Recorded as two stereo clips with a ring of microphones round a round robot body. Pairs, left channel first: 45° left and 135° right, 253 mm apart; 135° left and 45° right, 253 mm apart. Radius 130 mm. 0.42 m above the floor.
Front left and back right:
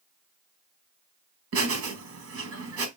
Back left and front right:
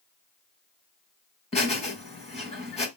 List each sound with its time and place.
1.5 s laughter: 160° right, 1.8 m